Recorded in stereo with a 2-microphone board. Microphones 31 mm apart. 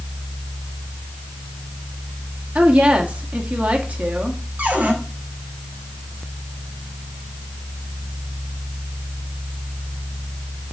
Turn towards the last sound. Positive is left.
turn(degrees=-70)  # may be behind; listen again after turning